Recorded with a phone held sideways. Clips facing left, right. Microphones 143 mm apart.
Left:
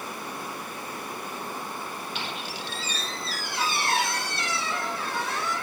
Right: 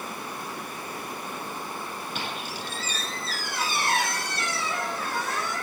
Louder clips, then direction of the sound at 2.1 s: Right 1 dB; 50° right (ahead or behind).